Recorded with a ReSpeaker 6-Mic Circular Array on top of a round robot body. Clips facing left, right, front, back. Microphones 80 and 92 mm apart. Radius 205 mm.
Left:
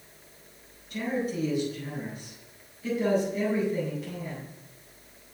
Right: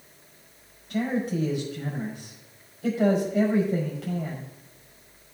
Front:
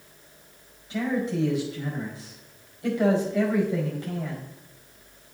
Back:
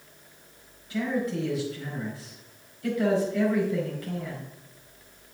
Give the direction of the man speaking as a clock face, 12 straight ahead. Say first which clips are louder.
Right 3 dB, front 1 dB; 2 o'clock.